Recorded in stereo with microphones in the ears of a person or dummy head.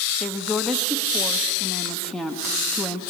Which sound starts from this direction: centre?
A woman speaking, at 0.2 s.